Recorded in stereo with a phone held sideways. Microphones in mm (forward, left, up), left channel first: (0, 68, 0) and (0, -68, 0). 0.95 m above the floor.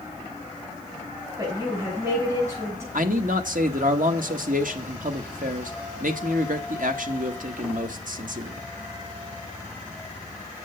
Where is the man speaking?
70° right (ahead or behind), 1.0 m.